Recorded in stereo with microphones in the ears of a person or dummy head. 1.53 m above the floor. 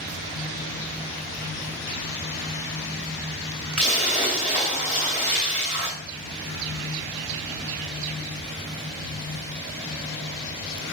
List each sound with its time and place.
3.8 s a splash: 30° right (ahead or behind), 2 m